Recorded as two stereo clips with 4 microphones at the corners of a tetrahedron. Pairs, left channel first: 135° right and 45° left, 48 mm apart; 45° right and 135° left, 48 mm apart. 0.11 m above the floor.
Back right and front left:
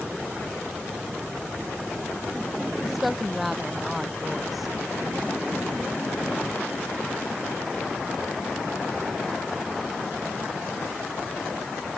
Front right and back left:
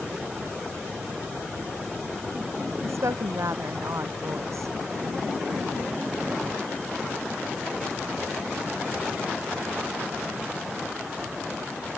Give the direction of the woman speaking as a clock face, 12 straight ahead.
8 o'clock.